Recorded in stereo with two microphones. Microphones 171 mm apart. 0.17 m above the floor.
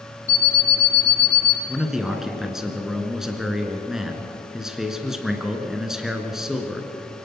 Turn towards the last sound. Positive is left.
turn(degrees=-5)  # may be behind; listen again after turning